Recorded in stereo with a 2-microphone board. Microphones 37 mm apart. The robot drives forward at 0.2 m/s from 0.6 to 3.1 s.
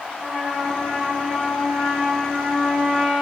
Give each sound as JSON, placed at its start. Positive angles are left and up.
{"t": 0.1, "sound": "a trumpet", "side_deg": -35, "distance_m": 9.0}